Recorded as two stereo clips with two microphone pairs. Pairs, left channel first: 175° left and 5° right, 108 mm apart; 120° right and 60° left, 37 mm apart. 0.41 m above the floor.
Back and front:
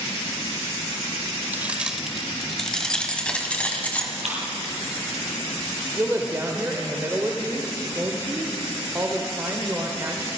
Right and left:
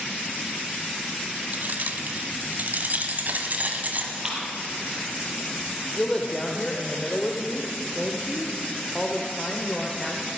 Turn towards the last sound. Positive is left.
turn(degrees=-55)